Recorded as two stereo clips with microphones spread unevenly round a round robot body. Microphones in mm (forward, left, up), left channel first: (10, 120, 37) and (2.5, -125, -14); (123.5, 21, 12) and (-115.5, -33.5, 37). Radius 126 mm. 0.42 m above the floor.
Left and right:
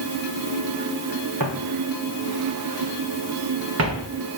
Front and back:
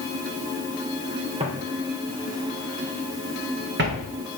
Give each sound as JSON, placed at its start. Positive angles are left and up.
{"t": 1.4, "sound": "footsteps", "azimuth_deg": -105, "distance_m": 4.0}